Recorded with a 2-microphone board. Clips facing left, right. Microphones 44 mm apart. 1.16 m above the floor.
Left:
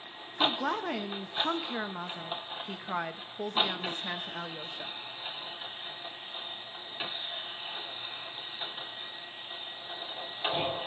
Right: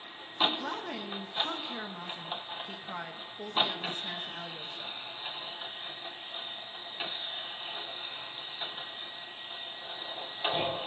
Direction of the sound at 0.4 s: 30° left (ahead or behind).